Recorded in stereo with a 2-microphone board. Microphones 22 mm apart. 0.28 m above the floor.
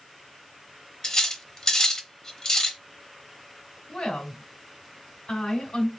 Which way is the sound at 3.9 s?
50° left (ahead or behind).